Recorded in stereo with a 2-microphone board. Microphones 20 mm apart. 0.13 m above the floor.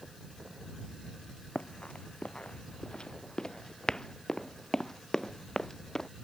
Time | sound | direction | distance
1.6 | running footsteps | 75° left (ahead or behind) | ?